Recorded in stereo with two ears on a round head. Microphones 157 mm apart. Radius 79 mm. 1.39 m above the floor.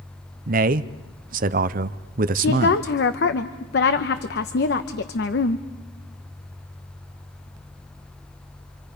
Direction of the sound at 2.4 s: 60° left (ahead or behind).